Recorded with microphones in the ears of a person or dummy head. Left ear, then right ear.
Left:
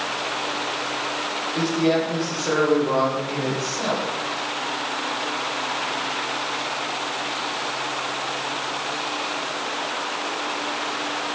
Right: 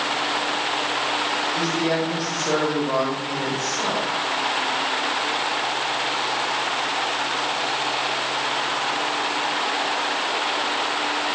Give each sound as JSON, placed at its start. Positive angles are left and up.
{"t": 1.6, "sound": "a man speaking", "side_deg": -5, "distance_m": 8.5}